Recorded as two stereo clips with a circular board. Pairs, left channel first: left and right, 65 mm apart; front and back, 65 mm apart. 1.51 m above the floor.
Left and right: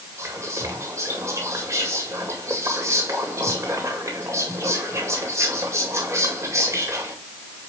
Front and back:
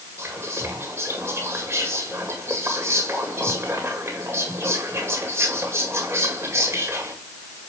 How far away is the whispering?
About 1.9 m.